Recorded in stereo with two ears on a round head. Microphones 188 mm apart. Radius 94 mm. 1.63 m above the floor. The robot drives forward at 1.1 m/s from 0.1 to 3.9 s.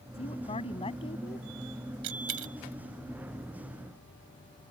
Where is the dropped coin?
75° right (ahead or behind); by 2.5 s 70° right (ahead or behind).